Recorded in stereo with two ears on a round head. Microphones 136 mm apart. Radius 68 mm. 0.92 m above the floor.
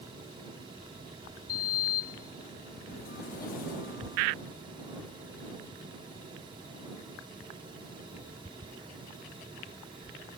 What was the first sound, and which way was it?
A sliding door, 60° left (ahead or behind).